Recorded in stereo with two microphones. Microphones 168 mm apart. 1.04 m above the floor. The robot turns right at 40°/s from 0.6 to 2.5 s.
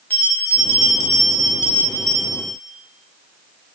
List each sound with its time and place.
0.1 s a bell: 170° left, 0.7 m; by 2.5 s 115° right, 0.7 m